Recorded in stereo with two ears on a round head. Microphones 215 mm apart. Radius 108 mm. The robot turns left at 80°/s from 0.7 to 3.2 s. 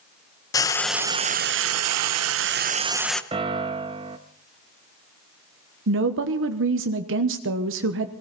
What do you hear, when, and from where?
0.5 s frying: 15° left, 0.7 m; by 3.2 s 175° left, 0.7 m
3.3 s a piano: 20° right (ahead or behind), 0.8 m
5.9 s a woman speaking: 55° right (ahead or behind), 1.1 m